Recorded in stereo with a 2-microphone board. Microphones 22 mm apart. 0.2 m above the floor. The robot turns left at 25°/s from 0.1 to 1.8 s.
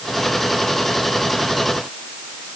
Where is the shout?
No shout in this recording.